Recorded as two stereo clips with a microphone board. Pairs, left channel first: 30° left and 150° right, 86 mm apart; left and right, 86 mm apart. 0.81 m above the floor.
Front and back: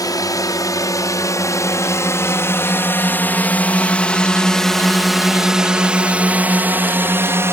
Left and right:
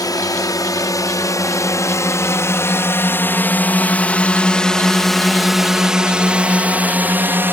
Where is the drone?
60° left; by 7.5 s 130° right.